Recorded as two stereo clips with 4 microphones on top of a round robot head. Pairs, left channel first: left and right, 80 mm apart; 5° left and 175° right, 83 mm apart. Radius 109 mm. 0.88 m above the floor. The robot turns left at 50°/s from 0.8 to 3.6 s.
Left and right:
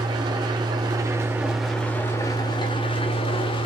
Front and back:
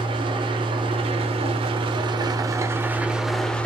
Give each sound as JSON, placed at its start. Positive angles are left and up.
{"t": 0.0, "sound": "an engine running", "azimuth_deg": -140, "distance_m": 1.0}